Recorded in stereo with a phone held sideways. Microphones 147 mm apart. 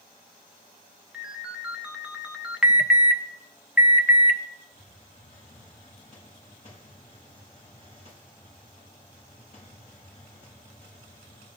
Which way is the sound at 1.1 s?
5° right (ahead or behind).